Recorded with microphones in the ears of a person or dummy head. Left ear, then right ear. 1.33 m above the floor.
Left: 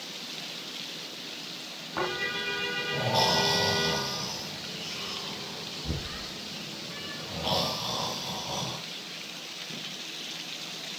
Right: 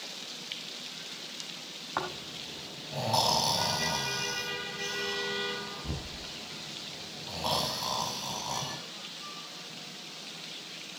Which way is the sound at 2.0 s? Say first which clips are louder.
Left 6 dB; 60° right (ahead or behind).